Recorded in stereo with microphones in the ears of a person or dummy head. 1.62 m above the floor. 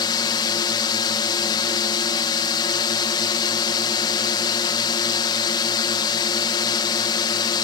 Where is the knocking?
I don't hear knocking.